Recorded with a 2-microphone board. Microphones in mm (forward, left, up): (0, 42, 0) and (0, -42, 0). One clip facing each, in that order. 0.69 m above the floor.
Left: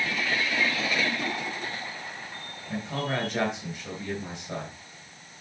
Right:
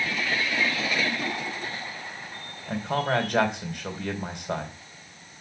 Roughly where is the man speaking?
Right.